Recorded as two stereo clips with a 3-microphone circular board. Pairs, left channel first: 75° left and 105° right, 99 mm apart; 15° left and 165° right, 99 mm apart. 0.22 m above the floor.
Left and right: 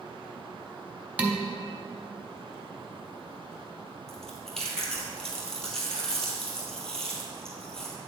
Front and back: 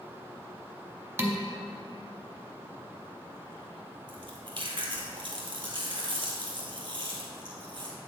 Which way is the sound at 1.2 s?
160° right.